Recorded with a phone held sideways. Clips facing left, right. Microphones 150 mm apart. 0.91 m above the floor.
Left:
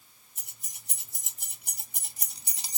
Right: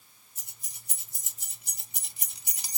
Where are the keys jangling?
75° left (ahead or behind), 1.7 m; by 2.8 s 20° left (ahead or behind), 0.8 m.